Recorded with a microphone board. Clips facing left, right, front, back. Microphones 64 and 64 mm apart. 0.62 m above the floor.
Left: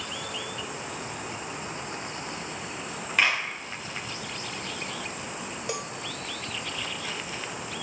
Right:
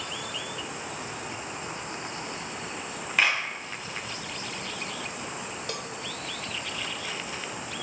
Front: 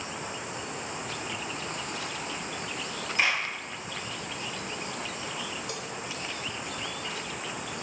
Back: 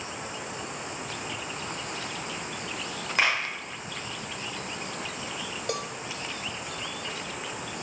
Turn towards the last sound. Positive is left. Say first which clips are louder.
# left 5 dB, back 5 dB
turn(degrees=160)